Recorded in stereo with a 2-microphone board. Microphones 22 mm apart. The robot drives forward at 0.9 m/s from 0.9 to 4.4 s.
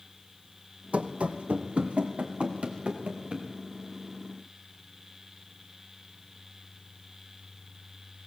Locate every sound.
0.9 s running footsteps: 80° right, 1.1 m; by 3.5 s 55° right (ahead or behind), 2.5 m